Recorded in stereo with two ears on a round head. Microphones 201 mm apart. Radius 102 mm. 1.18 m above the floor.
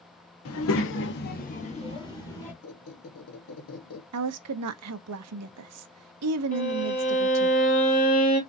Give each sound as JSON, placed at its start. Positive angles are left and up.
{"t": 0.5, "sound": "a child speaking", "side_deg": 70, "distance_m": 1.0}
{"t": 2.6, "sound": "a squeak", "side_deg": 70, "distance_m": 1.2}
{"t": 4.1, "sound": "a woman speaking", "side_deg": -80, "distance_m": 0.6}
{"t": 6.5, "sound": "a violin", "side_deg": 40, "distance_m": 2.5}